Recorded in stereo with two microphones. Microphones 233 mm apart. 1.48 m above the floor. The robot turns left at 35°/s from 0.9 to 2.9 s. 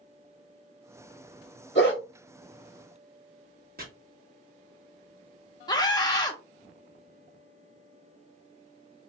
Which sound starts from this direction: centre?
A scream, at 5.7 s.